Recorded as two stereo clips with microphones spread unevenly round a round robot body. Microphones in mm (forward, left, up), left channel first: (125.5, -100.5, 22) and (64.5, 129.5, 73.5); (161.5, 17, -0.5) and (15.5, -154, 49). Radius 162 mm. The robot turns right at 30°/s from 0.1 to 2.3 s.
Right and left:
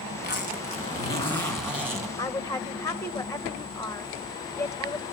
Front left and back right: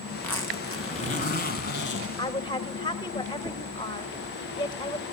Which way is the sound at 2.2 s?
10° right.